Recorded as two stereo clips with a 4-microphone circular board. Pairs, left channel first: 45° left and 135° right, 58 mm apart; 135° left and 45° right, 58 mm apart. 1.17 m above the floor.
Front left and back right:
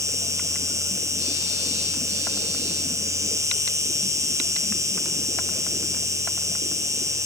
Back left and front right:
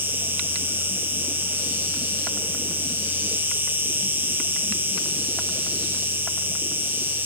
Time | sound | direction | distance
0.0 | an insect | 105° right | 5 m